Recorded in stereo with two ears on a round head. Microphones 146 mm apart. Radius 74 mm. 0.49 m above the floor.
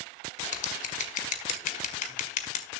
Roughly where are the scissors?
Left.